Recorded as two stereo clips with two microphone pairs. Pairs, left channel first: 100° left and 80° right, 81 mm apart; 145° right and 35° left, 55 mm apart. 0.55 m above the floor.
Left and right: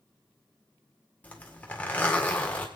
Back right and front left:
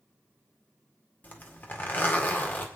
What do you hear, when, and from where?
1.2 s a zipper: 170° left, 1.8 m